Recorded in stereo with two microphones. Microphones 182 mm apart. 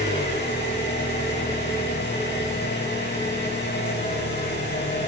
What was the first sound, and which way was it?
An engine running, 70° left (ahead or behind).